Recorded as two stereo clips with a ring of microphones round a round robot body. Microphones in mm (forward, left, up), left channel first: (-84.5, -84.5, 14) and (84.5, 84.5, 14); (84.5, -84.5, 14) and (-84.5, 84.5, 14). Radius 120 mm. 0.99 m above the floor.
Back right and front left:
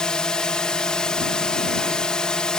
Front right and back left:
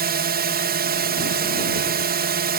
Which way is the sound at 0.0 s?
140° left.